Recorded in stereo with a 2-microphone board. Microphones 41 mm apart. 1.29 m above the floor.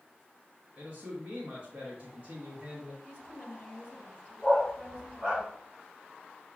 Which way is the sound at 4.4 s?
20° right (ahead or behind).